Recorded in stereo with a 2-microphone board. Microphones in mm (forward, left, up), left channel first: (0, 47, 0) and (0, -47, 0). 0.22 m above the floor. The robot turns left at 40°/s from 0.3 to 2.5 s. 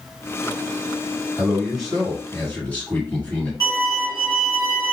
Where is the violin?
40° left (ahead or behind), 1.3 m.